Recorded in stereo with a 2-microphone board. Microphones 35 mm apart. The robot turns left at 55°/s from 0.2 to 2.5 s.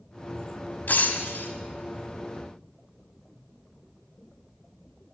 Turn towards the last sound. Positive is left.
turn(degrees=30)